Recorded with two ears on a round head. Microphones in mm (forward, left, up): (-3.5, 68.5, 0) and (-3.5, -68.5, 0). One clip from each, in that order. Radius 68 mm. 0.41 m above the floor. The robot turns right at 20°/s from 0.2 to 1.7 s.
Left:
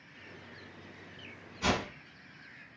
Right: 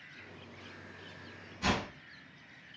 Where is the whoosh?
15° left (ahead or behind), 1.2 m.